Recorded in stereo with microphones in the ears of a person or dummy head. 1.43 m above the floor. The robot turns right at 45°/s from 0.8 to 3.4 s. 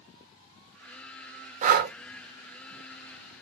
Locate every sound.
1.6 s breathing: 35° right (ahead or behind), 0.6 m; by 1.9 s 50° right (ahead or behind), 0.6 m